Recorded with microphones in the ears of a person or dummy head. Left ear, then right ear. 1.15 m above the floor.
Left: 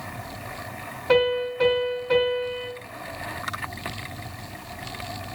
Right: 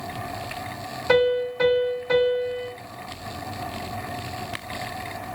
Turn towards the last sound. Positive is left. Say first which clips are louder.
# right 1 dB
turn(degrees=-65)  # may be behind; listen again after turning